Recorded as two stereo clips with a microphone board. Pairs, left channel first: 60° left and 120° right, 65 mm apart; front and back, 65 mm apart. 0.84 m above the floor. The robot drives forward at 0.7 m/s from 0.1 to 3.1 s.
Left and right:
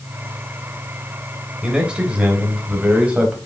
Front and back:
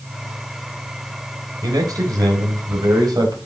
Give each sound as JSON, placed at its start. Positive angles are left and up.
{"t": 1.6, "sound": "a man speaking", "azimuth_deg": 160, "distance_m": 3.5}